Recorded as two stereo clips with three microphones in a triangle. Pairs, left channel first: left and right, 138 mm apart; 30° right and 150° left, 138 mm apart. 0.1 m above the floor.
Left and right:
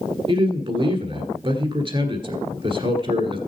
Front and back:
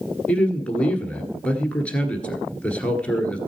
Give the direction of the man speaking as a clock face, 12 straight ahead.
4 o'clock.